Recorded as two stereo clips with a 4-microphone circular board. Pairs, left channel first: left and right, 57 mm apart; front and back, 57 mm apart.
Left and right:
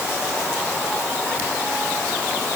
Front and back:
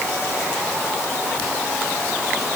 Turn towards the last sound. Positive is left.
No sound to turn to.